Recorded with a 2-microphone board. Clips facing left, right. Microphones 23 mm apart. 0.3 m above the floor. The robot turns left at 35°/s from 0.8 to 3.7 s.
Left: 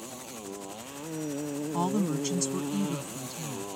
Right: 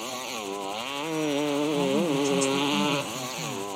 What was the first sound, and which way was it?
A motorcycle, 50° right.